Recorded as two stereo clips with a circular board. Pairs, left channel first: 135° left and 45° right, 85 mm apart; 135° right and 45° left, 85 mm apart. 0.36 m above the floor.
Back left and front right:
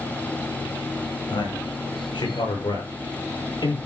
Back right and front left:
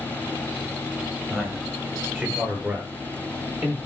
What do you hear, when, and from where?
1.3 s a man speaking: 115° left, 7 m; by 3.8 s 105° left, 9.5 m